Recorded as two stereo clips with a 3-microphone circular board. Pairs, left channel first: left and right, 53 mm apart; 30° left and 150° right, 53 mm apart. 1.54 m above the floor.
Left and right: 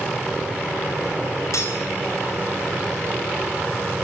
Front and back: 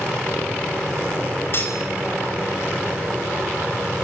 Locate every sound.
1.5 s cutlery clinking: 75° left, 5.5 m